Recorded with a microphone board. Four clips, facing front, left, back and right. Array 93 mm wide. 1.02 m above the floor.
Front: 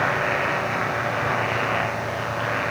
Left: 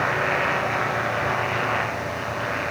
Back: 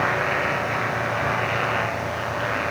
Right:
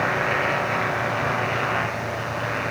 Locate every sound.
Only background noise.